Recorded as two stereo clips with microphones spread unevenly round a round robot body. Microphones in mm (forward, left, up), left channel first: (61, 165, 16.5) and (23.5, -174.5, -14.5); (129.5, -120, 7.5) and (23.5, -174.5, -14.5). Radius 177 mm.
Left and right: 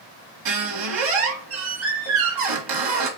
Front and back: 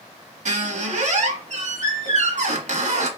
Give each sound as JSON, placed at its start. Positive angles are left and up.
{"t": 0.5, "sound": "a squeak", "azimuth_deg": -130, "distance_m": 1.3}